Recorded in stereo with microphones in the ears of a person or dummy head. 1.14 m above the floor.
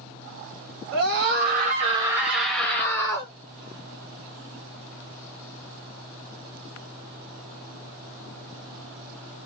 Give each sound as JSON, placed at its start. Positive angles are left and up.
{"t": 0.9, "sound": "a scream", "side_deg": -60, "distance_m": 0.8}